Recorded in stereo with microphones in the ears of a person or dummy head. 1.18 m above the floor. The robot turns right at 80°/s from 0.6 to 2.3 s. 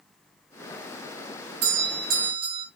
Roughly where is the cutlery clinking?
No cutlery clinking in this recording.